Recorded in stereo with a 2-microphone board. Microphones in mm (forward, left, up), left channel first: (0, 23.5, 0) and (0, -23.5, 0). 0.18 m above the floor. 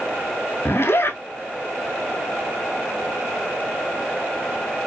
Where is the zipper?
55° left (ahead or behind), 0.6 m.